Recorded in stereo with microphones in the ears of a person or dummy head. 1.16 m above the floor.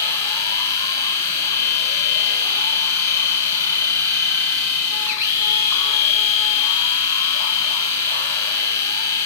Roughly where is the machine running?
Centre.